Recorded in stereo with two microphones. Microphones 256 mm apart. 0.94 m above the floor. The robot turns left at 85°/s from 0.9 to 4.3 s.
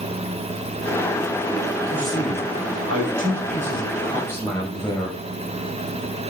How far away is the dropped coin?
I don't hear a dropped coin.